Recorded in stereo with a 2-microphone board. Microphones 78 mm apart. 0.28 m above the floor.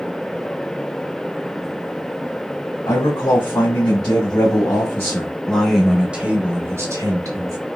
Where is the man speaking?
60° left (ahead or behind), 2 m; by 7.6 s 50° right (ahead or behind), 1.4 m.